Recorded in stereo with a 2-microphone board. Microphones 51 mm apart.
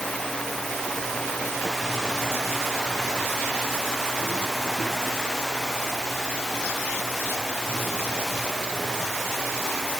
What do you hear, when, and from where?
Only background noise.